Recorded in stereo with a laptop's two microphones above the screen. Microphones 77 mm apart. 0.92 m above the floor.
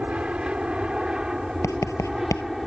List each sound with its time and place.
0.0 s an aircraft: 15° right (ahead or behind); by 2.7 s centre (ahead or behind)
1.6 s writing: 45° left (ahead or behind)